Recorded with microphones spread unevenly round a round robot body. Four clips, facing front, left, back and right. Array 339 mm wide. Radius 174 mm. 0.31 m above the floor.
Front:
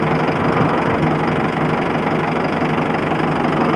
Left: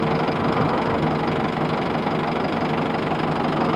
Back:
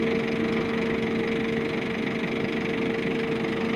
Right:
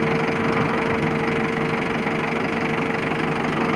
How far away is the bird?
No bird in this recording.